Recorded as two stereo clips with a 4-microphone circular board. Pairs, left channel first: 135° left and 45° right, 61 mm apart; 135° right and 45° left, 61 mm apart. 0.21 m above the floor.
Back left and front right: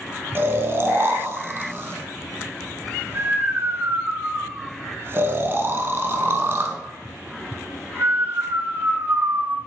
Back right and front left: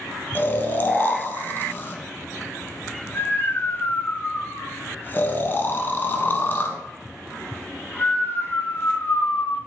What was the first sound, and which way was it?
Snoring, 85° right.